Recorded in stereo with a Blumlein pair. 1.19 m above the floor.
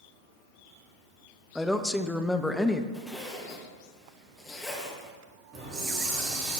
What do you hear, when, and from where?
1.6 s a woman speaking: 5° left, 0.8 m
2.9 s a zipper: 10° left, 2.0 m
5.5 s a hiss: 35° right, 3.5 m